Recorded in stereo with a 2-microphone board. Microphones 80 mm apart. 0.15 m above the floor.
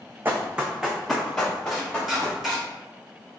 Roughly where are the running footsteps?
Right.